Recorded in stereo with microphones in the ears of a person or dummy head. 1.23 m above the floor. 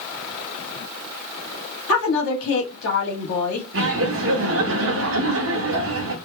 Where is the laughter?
55° right (ahead or behind), 0.8 m.